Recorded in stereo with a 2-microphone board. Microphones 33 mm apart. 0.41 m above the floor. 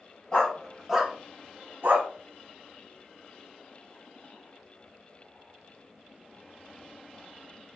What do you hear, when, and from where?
0.3 s a dog barking: 25° left (ahead or behind), 0.9 m; by 2.1 s 70° right (ahead or behind), 1.0 m